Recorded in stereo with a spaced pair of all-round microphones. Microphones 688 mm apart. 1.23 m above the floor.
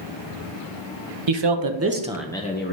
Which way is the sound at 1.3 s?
45° right (ahead or behind).